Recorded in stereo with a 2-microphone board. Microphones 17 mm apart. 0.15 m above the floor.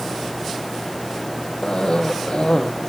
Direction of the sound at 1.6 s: 55° left (ahead or behind).